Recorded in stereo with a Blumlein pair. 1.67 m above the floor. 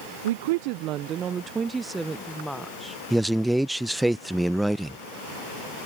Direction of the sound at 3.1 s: 5° right.